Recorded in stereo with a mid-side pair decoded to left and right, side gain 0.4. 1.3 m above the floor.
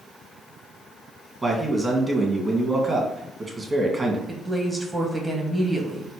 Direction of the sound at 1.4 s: 25° right.